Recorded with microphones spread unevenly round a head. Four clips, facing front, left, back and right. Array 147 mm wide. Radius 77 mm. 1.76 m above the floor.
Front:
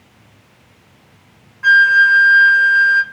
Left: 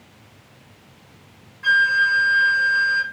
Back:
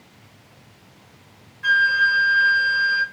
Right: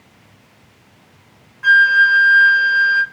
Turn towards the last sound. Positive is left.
turn(degrees=-40)